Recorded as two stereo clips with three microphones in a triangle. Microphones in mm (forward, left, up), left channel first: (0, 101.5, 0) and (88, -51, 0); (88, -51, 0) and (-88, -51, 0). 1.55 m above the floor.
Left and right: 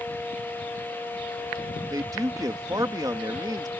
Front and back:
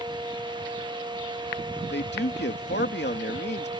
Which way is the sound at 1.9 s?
10° left.